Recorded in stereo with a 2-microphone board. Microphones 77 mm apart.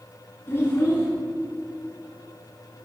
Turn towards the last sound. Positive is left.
turn(degrees=35)  # may be behind; listen again after turning